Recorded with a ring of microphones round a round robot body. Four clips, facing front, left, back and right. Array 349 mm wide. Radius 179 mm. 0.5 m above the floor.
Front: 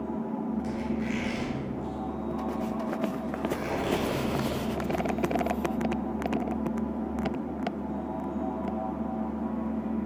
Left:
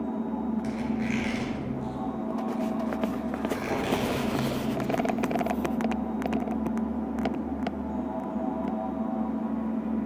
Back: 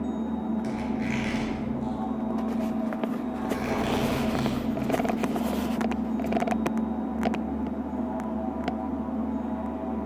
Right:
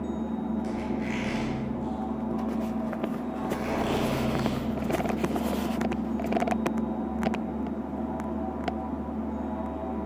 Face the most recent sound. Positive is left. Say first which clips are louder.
# left 1 dB, back 2 dB
turn(degrees=135)